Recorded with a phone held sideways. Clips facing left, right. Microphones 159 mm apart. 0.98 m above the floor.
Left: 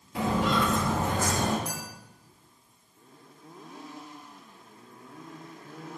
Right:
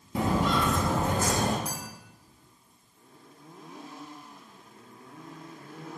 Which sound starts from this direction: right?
Footsteps, at 0.1 s.